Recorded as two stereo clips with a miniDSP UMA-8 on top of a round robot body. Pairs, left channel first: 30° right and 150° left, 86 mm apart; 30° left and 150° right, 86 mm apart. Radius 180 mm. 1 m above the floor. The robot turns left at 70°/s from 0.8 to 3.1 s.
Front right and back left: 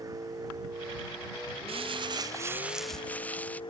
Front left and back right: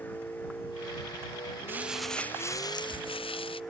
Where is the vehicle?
100° left; by 3.7 s 55° right.